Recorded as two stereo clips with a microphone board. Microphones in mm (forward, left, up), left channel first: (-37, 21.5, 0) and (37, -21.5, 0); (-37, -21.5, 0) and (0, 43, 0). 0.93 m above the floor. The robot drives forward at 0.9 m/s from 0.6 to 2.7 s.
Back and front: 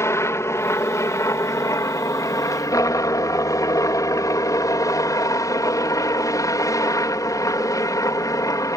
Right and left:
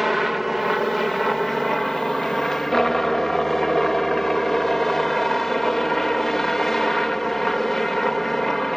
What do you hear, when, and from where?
0.0 s a helicopter: 150° left; by 8.8 s 155° left